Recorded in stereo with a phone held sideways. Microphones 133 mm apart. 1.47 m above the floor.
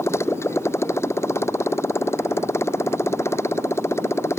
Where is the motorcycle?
20° left (ahead or behind).